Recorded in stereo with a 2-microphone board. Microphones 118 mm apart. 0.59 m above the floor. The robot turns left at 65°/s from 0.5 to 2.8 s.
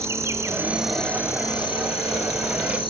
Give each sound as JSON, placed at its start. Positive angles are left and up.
{"t": 0.0, "sound": "an insect", "azimuth_deg": -155, "distance_m": 1.7}